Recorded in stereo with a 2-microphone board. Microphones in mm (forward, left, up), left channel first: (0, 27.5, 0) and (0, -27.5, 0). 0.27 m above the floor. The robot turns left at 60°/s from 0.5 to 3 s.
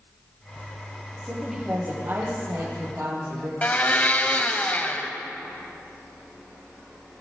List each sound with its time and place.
1.2 s a woman speaking: 5° left, 7 m; by 3.5 s 100° right, 7 m
3.6 s a blender: 30° left (ahead or behind), 1.3 m